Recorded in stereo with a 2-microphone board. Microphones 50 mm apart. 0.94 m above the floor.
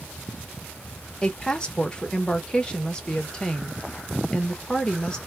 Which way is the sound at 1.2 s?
20° left (ahead or behind).